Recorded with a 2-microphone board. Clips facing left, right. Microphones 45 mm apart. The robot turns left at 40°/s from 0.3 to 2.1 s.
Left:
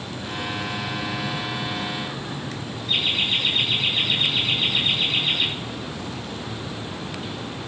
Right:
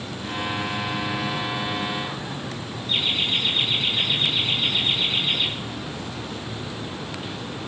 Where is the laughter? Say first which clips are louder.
Left 1 dB; 70° left (ahead or behind), 4.5 m.